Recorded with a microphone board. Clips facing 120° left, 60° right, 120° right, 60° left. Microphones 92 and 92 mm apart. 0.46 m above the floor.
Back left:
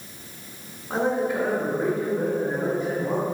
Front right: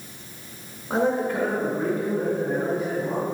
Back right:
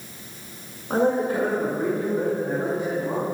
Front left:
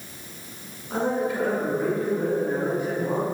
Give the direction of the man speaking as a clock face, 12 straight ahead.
5 o'clock.